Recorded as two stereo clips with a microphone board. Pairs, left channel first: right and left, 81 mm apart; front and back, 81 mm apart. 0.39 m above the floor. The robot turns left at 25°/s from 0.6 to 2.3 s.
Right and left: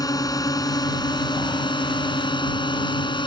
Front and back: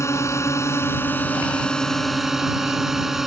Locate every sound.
0.0 s a drone: 50° right; by 3.3 s 95° right